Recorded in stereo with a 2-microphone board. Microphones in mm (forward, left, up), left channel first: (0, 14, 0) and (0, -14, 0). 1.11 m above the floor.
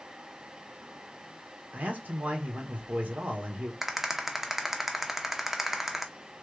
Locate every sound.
1.7 s a man speaking: 60° right (ahead or behind), 1.2 m
3.8 s a rattle: 10° right (ahead or behind), 0.5 m